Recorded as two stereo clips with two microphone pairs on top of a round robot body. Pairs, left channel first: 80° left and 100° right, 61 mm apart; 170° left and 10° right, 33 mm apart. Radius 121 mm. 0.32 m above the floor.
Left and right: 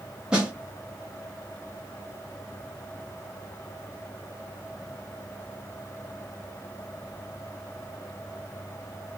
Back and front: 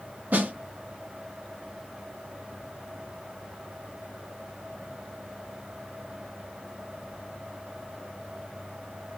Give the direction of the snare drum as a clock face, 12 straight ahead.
1 o'clock.